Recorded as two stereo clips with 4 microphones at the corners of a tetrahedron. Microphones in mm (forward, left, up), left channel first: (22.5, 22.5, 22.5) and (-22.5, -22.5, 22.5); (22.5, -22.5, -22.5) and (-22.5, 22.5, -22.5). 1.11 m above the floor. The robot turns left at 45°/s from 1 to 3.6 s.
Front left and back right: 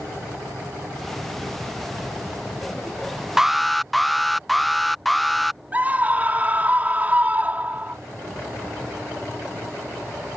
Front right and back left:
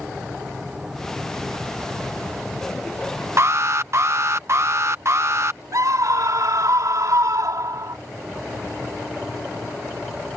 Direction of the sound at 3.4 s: 145° left.